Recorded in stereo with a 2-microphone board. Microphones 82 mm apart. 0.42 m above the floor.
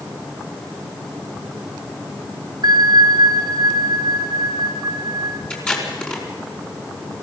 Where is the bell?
65° right (ahead or behind), 1.7 m.